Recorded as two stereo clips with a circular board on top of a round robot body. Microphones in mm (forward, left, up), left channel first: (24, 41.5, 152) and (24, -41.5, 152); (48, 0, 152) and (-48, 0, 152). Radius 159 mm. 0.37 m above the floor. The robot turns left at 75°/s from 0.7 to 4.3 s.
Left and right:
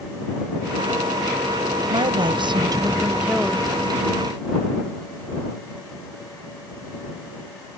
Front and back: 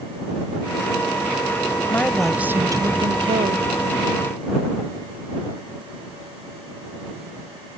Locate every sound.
1.9 s a woman speaking: 65° right; by 3.6 s 165° left